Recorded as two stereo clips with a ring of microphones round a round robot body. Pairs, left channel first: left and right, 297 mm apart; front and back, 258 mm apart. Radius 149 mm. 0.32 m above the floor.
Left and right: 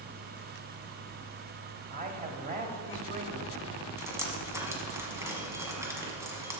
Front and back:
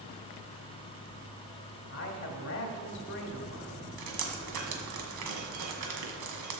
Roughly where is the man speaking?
Ahead right.